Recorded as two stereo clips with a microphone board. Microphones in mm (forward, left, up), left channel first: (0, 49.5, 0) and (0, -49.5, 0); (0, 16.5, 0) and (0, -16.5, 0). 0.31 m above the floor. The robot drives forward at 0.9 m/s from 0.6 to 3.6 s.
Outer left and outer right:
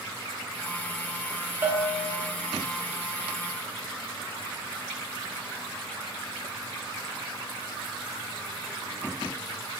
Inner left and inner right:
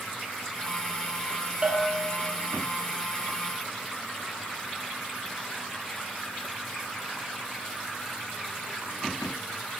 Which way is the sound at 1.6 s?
25° right (ahead or behind).